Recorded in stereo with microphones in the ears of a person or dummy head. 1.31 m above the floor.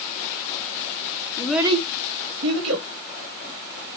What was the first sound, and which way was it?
A child speaking, 25° left (ahead or behind).